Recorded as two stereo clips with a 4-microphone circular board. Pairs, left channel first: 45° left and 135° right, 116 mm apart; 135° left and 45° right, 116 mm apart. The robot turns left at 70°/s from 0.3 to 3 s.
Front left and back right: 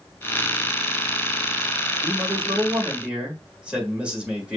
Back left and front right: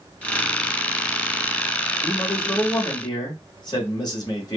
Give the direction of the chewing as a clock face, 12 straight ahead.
I don't hear chewing.